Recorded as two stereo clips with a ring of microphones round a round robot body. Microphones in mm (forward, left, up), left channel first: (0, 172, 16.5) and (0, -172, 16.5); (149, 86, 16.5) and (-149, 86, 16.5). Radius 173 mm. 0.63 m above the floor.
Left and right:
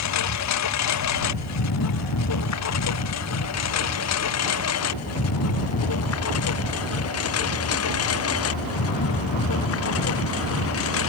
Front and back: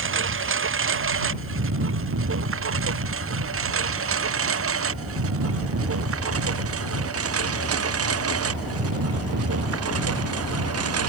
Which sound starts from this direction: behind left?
A lawn mower, at 0.0 s.